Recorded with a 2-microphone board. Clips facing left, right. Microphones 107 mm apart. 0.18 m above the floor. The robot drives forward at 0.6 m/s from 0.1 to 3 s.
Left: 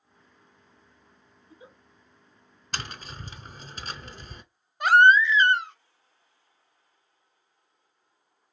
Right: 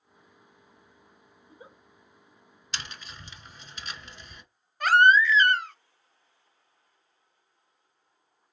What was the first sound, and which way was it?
A giggle, 50° right (ahead or behind).